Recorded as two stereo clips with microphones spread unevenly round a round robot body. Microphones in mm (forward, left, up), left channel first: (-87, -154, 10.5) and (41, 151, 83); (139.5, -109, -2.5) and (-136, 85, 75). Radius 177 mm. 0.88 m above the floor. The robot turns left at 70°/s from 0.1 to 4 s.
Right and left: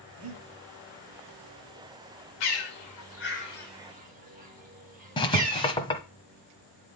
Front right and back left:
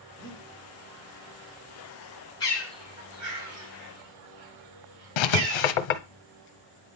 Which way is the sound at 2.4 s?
110° right.